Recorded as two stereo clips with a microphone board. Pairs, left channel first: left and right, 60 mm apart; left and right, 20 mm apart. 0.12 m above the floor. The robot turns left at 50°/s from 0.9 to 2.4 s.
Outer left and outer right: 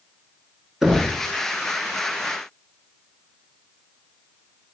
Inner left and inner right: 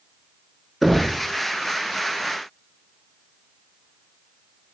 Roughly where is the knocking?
Centre.